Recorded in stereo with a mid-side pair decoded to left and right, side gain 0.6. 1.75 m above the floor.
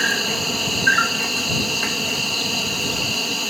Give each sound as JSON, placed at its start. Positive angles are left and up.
{"t": 0.0, "sound": "an insect", "azimuth_deg": 0}